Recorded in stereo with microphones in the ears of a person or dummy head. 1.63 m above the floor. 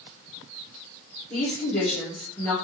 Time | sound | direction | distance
1.3 | a woman speaking | 15° left (ahead or behind) | 2 m